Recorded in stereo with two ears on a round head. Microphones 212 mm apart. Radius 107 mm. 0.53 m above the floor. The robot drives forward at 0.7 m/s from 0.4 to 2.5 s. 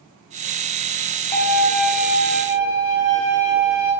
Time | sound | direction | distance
1.3 | a violin | 35° left (ahead or behind) | 0.6 m